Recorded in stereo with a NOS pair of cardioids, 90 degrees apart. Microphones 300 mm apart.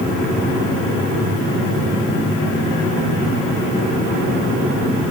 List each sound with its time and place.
Only background noise.